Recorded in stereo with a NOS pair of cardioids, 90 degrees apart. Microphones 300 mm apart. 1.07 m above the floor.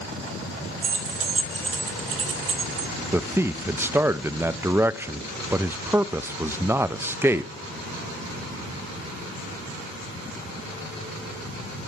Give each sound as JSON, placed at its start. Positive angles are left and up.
{"t": 0.8, "sound": "keys jangling", "azimuth_deg": -45, "distance_m": 2.0}
{"t": 3.1, "sound": "a man speaking", "azimuth_deg": -10, "distance_m": 0.5}